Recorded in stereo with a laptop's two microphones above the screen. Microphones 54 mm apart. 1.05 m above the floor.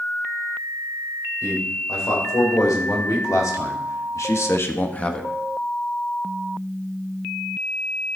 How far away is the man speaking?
About 4 m.